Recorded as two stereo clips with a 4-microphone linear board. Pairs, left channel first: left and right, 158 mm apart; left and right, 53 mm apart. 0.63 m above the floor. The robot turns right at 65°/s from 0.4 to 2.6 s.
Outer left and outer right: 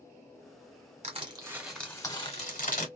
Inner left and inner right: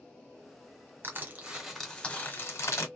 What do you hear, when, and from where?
1.0 s crushing: 45° right, 1.2 m; by 2.9 s 60° left, 1.2 m